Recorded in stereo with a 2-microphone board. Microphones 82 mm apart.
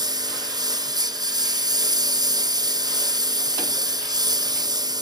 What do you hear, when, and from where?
0.0 s a lawn mower: 45° right (ahead or behind)